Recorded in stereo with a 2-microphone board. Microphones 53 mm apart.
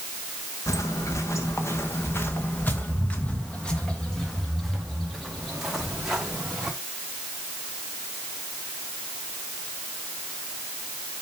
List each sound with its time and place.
0.7 s footsteps: 80° left, 1.8 m; by 6.7 s 10° right (ahead or behind), 3.5 m